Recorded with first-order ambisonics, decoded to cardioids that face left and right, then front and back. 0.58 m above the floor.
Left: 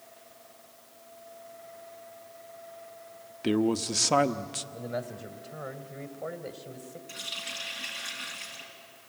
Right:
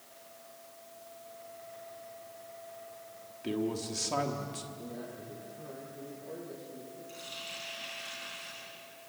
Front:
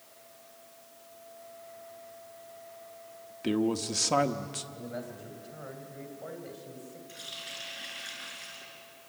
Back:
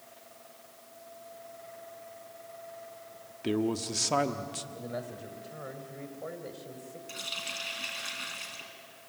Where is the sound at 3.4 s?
80° left, 0.8 m.